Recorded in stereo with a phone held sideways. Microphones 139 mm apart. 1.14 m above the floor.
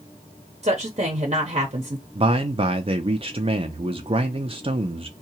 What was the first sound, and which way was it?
A woman speaking, 50° right (ahead or behind).